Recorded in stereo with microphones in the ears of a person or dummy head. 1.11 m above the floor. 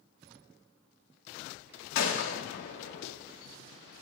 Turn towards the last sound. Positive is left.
turn(degrees=70)  # may be behind; listen again after turning